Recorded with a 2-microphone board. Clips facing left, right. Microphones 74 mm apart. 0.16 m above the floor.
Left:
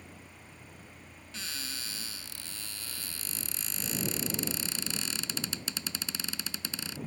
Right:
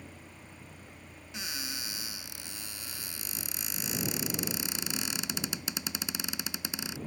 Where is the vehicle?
15° right (ahead or behind).